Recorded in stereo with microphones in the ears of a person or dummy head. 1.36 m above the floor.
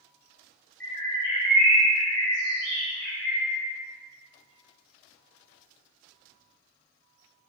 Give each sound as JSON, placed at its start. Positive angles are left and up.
{"t": 0.8, "sound": "a bird", "side_deg": 5, "distance_m": 1.5}